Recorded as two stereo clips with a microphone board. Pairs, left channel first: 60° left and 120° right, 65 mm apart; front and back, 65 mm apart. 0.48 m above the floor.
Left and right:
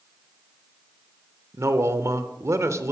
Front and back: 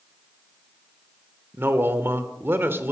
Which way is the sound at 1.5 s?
140° right.